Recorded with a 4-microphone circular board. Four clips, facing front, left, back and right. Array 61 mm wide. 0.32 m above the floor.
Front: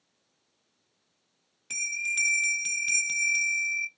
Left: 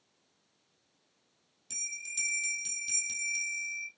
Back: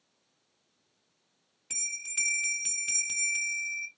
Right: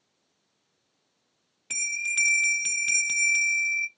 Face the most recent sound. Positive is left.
turn(degrees=-80)